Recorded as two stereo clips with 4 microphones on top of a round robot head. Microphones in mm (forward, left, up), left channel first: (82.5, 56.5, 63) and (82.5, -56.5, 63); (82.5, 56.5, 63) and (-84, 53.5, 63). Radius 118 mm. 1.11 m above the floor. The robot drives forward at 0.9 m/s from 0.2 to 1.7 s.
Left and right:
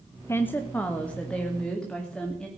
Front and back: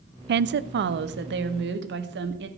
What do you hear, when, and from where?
0.3 s a woman speaking: 165° left, 0.6 m; by 2.5 s 175° left, 1.8 m